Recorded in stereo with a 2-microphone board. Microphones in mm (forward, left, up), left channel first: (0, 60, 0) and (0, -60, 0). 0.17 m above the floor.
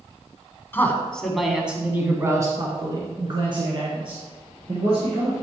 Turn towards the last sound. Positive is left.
turn(degrees=-50)  # may be behind; listen again after turning